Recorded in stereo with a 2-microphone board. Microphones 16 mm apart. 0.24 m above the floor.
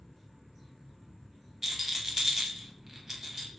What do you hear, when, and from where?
1.6 s a rattle: 35° right (ahead or behind), 0.6 m